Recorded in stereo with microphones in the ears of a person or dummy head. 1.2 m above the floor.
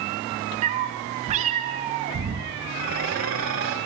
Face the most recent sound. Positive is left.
turn(degrees=-75)  # may be behind; listen again after turning